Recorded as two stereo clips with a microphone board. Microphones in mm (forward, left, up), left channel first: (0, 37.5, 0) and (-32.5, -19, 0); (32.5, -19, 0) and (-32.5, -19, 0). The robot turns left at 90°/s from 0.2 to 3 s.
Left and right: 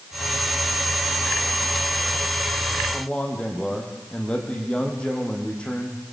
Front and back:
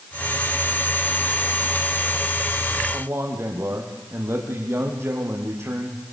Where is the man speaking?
140° left, 5 m; by 6.0 s 135° left, 5 m.